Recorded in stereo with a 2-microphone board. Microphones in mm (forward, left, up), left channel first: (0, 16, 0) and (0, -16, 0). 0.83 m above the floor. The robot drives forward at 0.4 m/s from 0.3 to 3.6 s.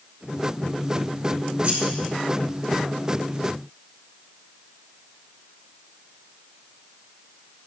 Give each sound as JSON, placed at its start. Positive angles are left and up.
{"t": 1.6, "sound": "scissors", "side_deg": -35, "distance_m": 3.5}